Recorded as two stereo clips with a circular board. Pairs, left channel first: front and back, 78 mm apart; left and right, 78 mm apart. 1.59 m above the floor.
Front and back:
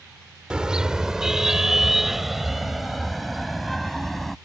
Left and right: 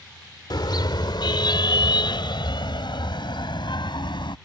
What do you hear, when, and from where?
0.5 s a car horn: 100° left; by 4.3 s 90° left